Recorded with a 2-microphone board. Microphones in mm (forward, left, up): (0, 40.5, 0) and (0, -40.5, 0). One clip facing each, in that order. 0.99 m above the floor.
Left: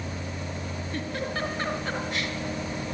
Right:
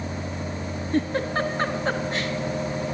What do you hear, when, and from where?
0.9 s a giggle: 35° right (ahead or behind), 4 m